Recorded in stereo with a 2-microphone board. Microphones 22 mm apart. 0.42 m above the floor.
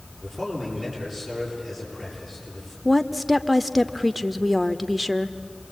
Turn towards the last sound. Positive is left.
turn(degrees=0)  # may be behind; listen again after turning